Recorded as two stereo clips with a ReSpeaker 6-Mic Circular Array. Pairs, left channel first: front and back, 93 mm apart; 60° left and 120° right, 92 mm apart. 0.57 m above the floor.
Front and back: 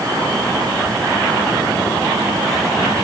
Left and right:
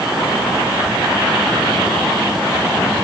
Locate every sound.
Only background noise.